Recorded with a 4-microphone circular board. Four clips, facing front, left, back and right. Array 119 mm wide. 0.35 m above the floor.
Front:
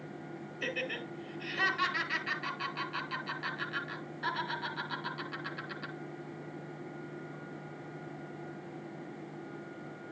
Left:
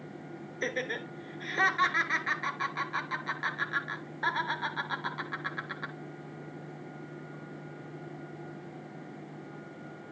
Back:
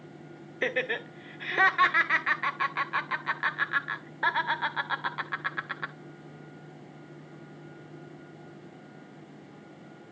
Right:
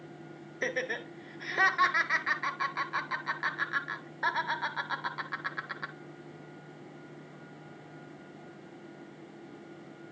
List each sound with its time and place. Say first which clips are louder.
0.6 s laughter: right 1 dB, back 8 dB; 165° right, 1.3 m